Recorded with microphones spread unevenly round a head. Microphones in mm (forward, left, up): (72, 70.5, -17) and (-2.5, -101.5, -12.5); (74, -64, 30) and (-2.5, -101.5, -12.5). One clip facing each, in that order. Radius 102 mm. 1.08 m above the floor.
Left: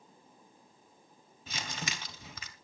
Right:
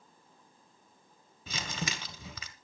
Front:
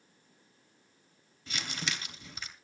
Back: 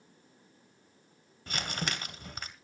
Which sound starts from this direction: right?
Crumpling, at 1.5 s.